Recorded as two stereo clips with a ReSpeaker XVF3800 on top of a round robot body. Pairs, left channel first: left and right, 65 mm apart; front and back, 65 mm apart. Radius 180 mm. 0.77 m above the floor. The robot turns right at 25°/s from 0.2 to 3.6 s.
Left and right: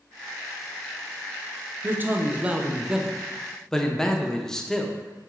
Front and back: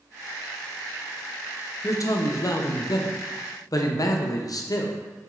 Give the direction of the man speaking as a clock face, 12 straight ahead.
1 o'clock.